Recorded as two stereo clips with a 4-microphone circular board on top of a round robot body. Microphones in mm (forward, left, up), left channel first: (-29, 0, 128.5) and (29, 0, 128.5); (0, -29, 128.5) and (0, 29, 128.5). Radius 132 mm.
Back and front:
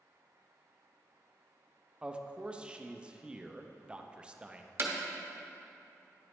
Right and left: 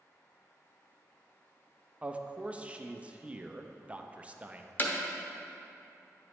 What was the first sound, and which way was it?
A man speaking, 50° left.